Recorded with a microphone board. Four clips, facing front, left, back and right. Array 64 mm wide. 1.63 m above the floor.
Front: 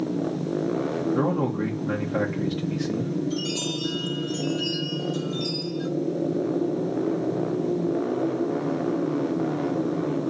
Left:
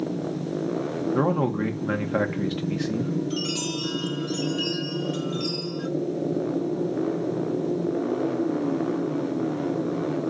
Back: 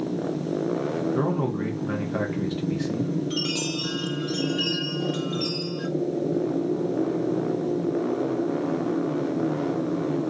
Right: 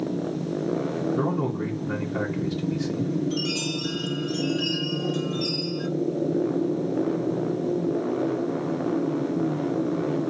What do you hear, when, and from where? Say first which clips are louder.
1.1 s a man speaking: left 2 dB, front 1 dB; 90° left, 2.0 m
3.3 s a chime: right 1 dB, even; 165° left, 3 m